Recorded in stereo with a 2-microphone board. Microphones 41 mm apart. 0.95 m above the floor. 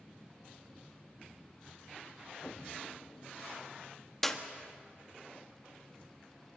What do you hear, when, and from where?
2.4 s an explosion: 40° left (ahead or behind), 0.8 m
4.2 s a clap: 5° left (ahead or behind), 1.4 m